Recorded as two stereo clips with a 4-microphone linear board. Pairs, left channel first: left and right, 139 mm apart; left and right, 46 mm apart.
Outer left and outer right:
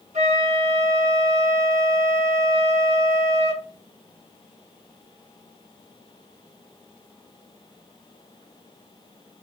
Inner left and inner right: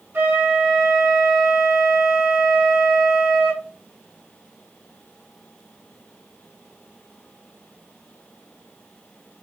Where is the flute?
55° right (ahead or behind), 1.2 m.